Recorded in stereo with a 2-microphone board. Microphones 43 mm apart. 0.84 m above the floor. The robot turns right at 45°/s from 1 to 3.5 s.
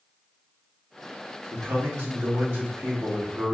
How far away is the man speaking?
About 1.8 m.